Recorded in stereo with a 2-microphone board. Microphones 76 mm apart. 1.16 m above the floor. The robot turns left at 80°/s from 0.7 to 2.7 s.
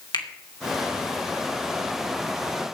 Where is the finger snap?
70° left (ahead or behind), 3 m.